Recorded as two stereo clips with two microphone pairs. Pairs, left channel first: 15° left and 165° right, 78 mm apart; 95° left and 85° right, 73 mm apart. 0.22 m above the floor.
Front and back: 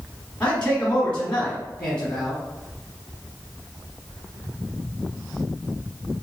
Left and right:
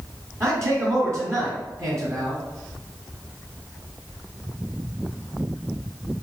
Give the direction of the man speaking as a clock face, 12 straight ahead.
2 o'clock.